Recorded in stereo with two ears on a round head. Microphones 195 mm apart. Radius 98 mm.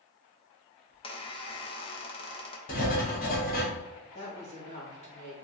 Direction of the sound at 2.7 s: 40° left (ahead or behind).